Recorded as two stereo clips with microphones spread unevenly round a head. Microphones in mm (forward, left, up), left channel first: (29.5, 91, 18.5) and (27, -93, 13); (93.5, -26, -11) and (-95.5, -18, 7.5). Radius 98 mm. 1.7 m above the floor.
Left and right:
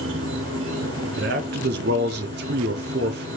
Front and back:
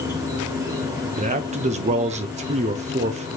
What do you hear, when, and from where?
0.0 s an insect: 110° right, 2.0 m
1.2 s a man speaking: 130° right, 0.7 m